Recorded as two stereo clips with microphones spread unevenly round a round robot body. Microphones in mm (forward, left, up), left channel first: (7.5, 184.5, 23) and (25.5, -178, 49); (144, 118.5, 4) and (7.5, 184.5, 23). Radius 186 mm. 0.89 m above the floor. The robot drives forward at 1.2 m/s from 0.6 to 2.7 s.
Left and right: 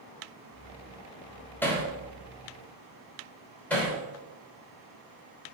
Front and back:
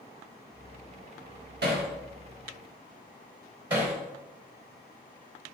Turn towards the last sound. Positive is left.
turn(degrees=180)